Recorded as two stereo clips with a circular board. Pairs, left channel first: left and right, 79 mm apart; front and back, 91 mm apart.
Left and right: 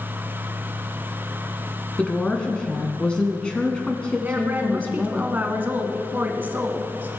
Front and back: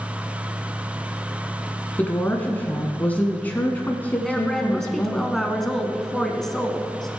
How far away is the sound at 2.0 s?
About 1.2 m.